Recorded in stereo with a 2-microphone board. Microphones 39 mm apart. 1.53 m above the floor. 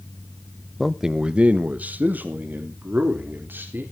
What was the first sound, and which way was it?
A man speaking, 5° left (ahead or behind).